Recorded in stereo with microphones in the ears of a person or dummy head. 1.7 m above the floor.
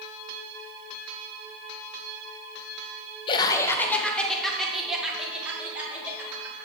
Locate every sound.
3.3 s laughter: 30° left (ahead or behind), 0.6 m; by 6.7 s 10° right (ahead or behind), 2.5 m